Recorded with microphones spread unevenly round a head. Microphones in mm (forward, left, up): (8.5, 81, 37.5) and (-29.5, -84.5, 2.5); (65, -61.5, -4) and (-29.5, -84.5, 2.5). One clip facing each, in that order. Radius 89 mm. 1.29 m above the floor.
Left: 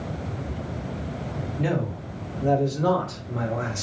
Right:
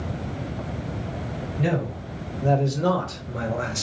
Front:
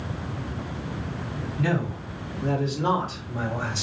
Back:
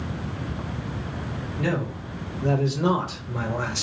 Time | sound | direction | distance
1.6 | a man speaking | 175° right | 2 m